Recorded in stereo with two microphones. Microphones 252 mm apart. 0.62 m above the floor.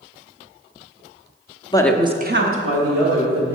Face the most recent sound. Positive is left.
turn(degrees=-75)  # may be behind; listen again after turning